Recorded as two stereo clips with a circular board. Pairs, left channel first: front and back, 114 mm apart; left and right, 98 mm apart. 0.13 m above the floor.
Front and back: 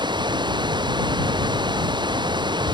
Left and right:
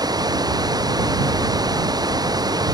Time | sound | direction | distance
0.0 | running water | 135° right | ?